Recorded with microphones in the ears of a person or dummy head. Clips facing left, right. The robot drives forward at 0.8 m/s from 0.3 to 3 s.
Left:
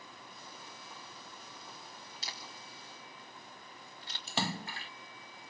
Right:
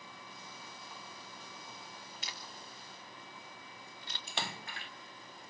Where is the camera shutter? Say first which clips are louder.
Even; 35° left (ahead or behind), 3.5 m; by 4.2 s 30° left (ahead or behind), 4 m.